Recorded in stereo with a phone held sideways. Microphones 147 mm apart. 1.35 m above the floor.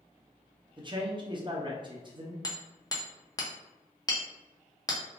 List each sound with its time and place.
0.8 s a man speaking: 35° right (ahead or behind), 0.7 m
2.4 s hammering: 25° left (ahead or behind), 0.6 m